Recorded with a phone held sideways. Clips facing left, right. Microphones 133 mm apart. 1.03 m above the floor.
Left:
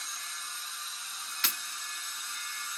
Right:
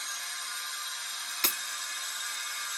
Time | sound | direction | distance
0.0 | a machine running | 85° right | 1.9 m
1.4 | breaking glass | 45° right (ahead or behind) | 0.7 m